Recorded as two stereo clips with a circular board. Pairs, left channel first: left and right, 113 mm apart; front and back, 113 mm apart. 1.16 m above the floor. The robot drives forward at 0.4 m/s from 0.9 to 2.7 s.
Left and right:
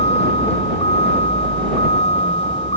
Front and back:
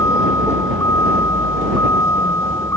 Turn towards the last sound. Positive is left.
turn(degrees=65)